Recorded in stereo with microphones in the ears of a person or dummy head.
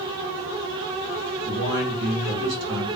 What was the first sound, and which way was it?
A man speaking, 80° right.